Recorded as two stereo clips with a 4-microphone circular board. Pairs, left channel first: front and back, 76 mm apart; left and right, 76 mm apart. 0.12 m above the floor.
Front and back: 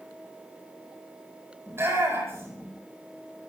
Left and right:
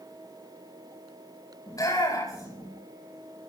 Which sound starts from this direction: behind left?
A shout, at 1.7 s.